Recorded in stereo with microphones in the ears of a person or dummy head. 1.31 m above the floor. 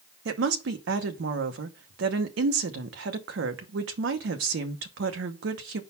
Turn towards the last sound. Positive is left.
turn(degrees=-70)  # may be behind; listen again after turning